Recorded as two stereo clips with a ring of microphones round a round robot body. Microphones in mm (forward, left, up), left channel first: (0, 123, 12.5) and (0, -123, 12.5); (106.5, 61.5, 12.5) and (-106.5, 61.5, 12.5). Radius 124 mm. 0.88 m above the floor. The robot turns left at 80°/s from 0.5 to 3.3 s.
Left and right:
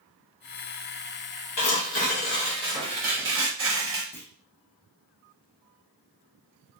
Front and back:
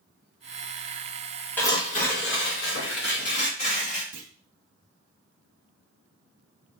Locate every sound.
1.6 s tearing paper: 80° left, 1.2 m; by 4.0 s 60° right, 1.2 m
4.1 s a clunk: 170° left, 0.6 m